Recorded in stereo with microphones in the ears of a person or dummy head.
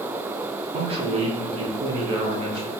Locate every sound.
0.7 s a man speaking: 25° right (ahead or behind), 0.9 m